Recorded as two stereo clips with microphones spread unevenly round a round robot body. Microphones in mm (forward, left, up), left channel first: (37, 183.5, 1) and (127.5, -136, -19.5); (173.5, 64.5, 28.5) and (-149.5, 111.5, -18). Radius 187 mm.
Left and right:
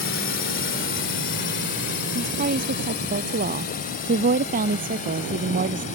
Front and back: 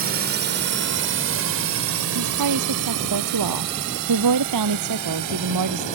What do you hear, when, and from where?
0.0 s a drone: 145° left; by 6.0 s 175° left
2.1 s a woman speaking: 145° right